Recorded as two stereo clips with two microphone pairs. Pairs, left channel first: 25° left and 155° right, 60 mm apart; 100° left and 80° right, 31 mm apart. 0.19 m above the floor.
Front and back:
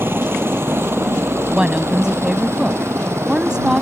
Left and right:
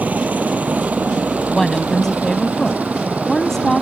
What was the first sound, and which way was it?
A helicopter, 100° right.